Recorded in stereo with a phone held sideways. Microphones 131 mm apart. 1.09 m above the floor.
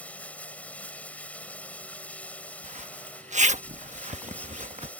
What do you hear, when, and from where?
0.0 s running water: 10° left (ahead or behind)
2.6 s a zipper: 65° right (ahead or behind)